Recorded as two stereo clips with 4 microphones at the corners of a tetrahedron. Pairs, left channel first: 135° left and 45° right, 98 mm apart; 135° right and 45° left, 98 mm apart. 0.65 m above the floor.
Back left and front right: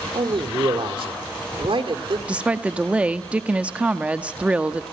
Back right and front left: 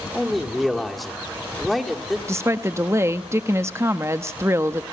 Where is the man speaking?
45° right, 1.8 m.